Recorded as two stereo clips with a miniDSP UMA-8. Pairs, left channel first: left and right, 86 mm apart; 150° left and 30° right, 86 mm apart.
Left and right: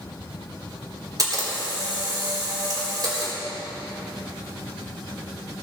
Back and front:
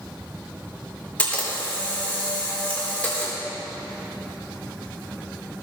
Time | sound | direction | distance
1.2 | a camera shutter | 135° right | 4 m